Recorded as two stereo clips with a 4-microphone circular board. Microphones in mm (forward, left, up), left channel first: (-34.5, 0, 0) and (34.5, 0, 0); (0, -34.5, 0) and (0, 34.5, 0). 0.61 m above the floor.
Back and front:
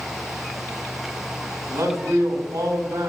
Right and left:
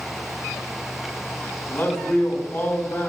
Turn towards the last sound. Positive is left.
turn(degrees=-25)